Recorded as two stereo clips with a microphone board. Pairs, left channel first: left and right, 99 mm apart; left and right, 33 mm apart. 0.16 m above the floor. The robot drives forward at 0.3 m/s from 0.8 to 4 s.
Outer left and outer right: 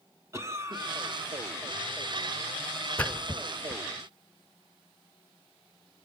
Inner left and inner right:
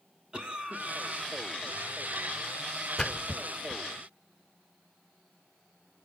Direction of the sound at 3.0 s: 15° left (ahead or behind).